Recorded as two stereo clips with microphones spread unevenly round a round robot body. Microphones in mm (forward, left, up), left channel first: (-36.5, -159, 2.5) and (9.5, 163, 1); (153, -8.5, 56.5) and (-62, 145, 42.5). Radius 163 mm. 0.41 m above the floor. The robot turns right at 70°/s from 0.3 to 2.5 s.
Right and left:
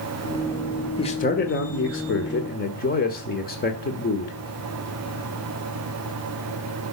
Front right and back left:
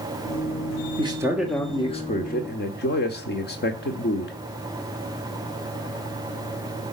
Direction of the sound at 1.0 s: 165° right.